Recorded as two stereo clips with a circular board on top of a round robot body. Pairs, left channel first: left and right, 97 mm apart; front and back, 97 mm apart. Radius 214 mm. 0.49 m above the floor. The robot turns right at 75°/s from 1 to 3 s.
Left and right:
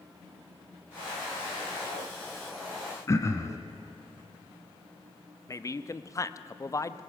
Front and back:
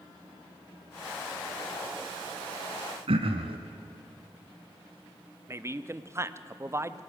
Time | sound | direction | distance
3.1 | throat clearing | 150° left | 1.0 m
5.5 | a man speaking | 130° left | 1.0 m